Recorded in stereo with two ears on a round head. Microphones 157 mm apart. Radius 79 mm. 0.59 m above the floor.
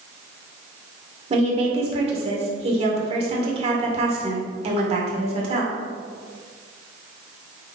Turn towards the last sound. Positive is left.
turn(degrees=-35)  # may be behind; listen again after turning